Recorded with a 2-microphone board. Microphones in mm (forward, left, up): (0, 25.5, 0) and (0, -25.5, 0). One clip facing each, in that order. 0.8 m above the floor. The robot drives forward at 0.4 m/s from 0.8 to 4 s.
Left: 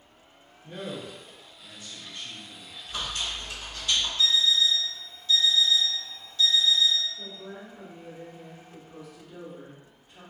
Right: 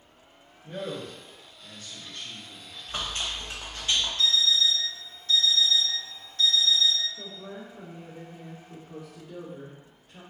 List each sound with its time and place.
0.6 s a man speaking: 5° left (ahead or behind), 1.6 m
2.9 s chewing: 40° right (ahead or behind), 0.8 m; by 4.1 s 30° right (ahead or behind), 1.1 m
4.2 s an alarm clock: 50° right (ahead or behind), 1.0 m
7.2 s a woman speaking: 70° right (ahead or behind), 1.2 m